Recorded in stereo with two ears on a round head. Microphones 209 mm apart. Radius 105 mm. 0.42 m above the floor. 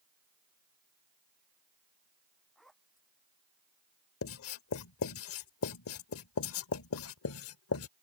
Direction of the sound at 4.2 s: 60° left (ahead or behind).